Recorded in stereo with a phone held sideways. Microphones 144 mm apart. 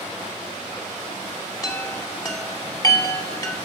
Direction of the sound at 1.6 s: 25° left (ahead or behind).